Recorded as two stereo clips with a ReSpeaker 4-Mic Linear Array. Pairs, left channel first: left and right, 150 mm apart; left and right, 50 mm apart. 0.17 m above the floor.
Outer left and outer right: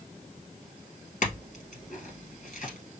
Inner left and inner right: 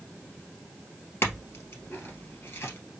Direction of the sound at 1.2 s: 60° left (ahead or behind).